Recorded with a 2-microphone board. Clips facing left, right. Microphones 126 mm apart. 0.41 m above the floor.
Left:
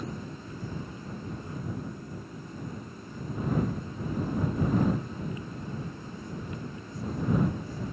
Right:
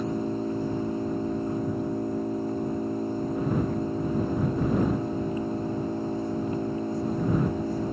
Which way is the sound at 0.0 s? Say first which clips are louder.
Right 11 dB; 65° right (ahead or behind).